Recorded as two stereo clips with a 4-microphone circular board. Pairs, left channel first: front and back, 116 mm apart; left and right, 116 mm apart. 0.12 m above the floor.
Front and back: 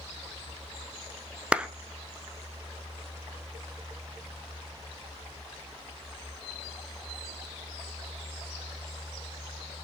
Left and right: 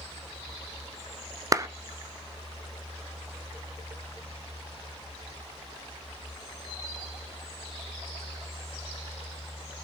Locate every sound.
1.5 s a clap: 110° right, 1.0 m